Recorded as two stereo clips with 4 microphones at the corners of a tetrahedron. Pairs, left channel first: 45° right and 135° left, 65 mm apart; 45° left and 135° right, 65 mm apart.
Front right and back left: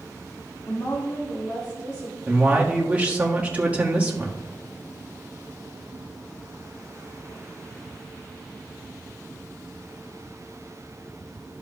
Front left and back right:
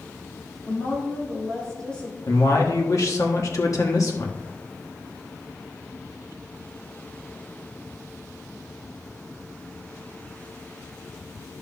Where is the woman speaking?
10° right, 1.9 m; by 2.2 s 35° right, 2.5 m.